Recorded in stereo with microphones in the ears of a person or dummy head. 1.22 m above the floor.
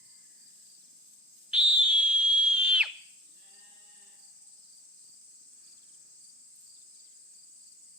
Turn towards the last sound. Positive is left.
turn(degrees=-10)  # may be behind; listen again after turning